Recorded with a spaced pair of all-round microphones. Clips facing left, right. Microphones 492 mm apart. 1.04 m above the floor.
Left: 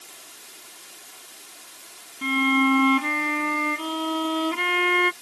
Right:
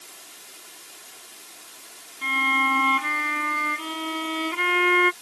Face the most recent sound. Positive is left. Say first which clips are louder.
# left 10 dB
turn(degrees=60)  # may be behind; listen again after turning